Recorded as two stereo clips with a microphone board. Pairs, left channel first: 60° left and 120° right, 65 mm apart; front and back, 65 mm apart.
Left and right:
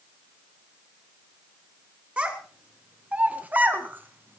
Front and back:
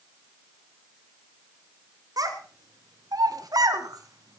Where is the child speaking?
170° left, 2.5 m; by 4.4 s 175° right, 1.5 m.